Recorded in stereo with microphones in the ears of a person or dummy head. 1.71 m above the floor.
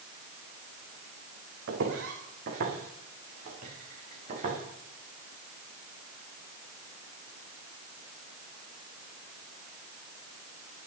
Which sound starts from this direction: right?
Footsteps, at 1.7 s.